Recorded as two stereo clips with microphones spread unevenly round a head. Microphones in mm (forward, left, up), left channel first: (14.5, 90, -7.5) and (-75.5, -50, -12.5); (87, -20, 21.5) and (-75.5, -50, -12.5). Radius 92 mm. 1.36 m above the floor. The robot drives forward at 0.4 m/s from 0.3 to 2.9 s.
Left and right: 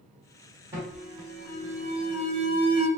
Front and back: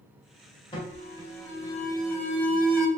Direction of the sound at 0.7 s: 45° right.